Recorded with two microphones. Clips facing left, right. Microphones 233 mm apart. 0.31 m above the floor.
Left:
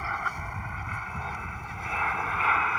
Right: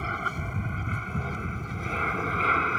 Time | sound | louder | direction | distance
0.0 | an aircraft | right 5 dB | 40° right (ahead or behind) | ?